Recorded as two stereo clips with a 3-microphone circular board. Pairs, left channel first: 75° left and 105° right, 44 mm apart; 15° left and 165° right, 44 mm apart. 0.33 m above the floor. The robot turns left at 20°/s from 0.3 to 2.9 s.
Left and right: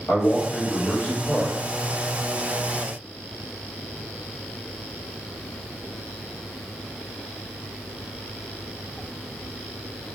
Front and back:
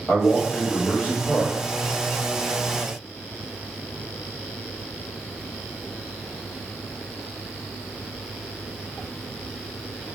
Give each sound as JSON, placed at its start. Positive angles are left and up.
{"t": 0.1, "sound": "a man speaking", "azimuth_deg": 65, "distance_m": 1.2}